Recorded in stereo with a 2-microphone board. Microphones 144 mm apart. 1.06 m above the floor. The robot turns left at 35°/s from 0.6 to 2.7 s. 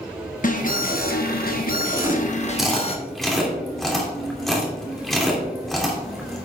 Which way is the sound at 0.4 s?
115° left.